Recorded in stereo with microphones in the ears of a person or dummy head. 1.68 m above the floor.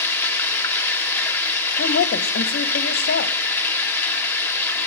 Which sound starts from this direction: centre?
Running water, at 0.0 s.